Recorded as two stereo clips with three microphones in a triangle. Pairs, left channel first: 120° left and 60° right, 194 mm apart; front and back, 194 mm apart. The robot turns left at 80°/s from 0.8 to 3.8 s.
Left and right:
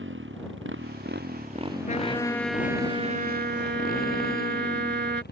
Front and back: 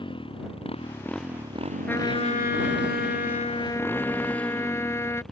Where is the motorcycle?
65° right; by 5.3 s 90° left.